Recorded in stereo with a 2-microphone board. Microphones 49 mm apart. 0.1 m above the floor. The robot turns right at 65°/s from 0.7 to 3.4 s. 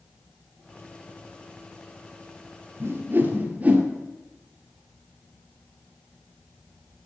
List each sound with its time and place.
2.8 s a whoosh: 50° right (ahead or behind), 1.7 m; by 3.9 s 30° right (ahead or behind), 1.7 m